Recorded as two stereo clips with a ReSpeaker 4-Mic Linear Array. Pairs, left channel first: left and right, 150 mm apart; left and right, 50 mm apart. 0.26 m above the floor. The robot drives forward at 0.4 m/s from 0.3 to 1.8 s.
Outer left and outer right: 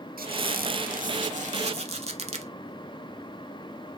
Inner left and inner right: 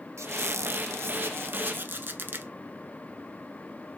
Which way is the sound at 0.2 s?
80° right.